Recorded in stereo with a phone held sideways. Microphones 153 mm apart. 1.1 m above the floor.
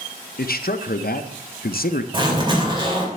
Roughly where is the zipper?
Right.